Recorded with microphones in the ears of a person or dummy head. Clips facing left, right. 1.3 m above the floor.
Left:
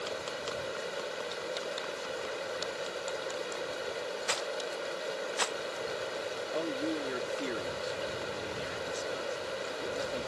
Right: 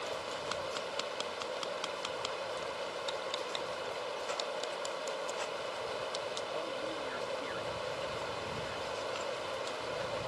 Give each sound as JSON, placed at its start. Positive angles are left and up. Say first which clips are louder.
{"t": 0.0, "sound": "running water", "louder": "left 2 dB", "side_deg": 25}
{"t": 4.3, "sound": "a rattle", "louder": "left 2 dB", "side_deg": 75}
{"t": 6.5, "sound": "a man speaking", "louder": "left 9 dB", "side_deg": 50}